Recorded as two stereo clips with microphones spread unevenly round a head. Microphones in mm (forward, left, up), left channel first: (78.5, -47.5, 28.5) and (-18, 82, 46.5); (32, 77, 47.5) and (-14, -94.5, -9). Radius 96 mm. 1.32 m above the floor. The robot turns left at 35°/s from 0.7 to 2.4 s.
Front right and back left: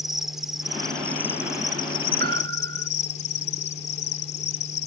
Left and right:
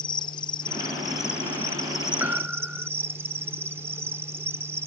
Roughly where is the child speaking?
No child speaking in this recording.